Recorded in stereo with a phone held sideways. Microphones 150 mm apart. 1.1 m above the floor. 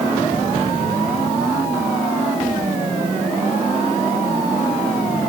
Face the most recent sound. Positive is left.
No sound to turn to.